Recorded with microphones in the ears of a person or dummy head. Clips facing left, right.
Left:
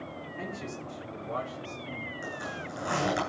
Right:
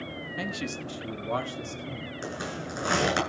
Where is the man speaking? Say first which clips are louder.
Right 5 dB; 90° right, 1.4 m; by 2.1 s 60° right (ahead or behind), 3 m.